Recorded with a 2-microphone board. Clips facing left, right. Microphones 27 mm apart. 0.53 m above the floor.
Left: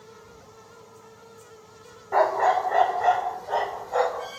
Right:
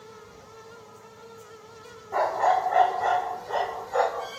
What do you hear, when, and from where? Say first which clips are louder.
2.1 s a dog barking: left 2 dB; 45° left (ahead or behind), 0.5 m; by 4.3 s 30° left (ahead or behind), 1.7 m